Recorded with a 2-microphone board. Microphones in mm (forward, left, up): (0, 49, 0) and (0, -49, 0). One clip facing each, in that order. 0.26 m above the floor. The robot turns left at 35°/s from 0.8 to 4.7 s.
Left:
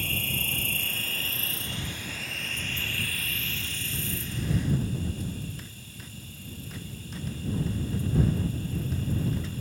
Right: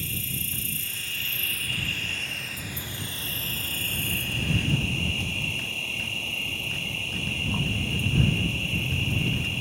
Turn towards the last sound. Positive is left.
turn(degrees=-80)